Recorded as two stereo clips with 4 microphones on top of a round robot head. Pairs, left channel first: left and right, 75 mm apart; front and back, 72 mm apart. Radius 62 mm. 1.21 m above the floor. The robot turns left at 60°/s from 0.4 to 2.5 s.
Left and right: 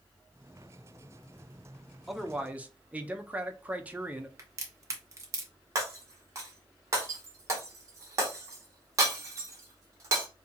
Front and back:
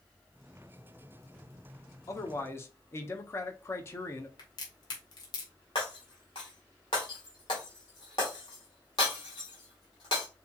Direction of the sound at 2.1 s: Straight ahead.